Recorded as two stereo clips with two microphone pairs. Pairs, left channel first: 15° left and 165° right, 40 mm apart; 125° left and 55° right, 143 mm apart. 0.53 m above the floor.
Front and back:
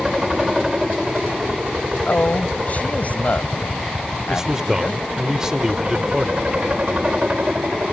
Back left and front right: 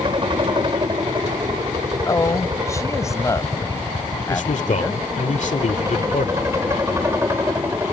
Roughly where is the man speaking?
Behind left.